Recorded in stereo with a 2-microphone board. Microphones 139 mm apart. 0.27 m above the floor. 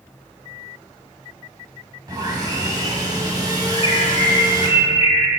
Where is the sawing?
30° right (ahead or behind), 1.4 m.